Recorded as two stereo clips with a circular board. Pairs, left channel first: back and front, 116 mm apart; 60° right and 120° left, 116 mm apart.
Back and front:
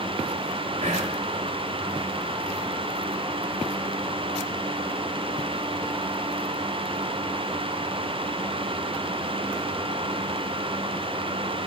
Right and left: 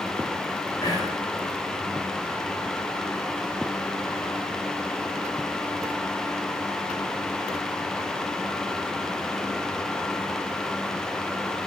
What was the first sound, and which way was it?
Whispering, 5° right.